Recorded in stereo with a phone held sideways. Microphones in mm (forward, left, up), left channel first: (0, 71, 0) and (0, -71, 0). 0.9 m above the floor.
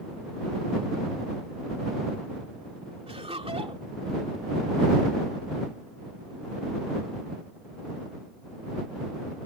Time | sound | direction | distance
3.1 | laughter | 45° right (ahead or behind) | ?